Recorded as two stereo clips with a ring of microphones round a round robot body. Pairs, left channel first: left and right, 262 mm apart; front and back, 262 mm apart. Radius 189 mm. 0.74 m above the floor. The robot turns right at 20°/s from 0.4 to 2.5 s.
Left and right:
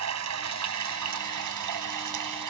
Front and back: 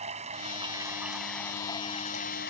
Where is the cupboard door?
I don't hear a cupboard door.